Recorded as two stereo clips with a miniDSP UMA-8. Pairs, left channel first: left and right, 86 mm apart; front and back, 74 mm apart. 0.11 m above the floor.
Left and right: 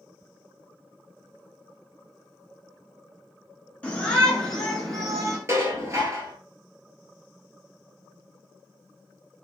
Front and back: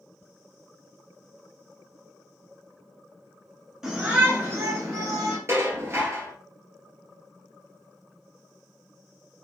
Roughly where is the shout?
Behind left.